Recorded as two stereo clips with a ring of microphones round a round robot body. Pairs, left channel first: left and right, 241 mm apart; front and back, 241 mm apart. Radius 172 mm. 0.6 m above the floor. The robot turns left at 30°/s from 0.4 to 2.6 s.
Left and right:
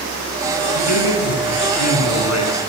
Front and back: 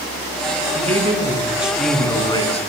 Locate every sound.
0.8 s a man speaking: 120° left, 7 m; by 2.7 s 65° left, 7 m